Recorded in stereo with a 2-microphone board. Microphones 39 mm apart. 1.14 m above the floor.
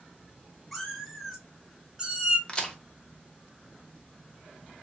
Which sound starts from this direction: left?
A crack, at 2.5 s.